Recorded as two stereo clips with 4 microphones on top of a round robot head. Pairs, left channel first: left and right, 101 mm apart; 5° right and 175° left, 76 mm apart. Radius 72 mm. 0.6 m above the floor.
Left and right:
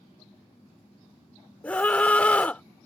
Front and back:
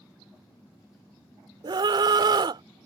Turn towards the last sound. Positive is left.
turn(degrees=165)